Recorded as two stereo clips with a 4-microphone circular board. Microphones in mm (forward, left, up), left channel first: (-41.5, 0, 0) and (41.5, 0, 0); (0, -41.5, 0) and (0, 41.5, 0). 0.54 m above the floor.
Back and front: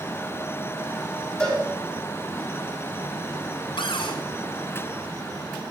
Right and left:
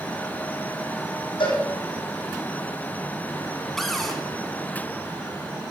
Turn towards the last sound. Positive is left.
turn(degrees=180)